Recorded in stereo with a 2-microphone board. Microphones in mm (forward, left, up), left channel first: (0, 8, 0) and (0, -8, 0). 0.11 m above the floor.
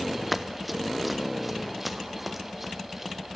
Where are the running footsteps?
10° right (ahead or behind), 0.9 m; by 3.1 s 15° right (ahead or behind), 2.5 m.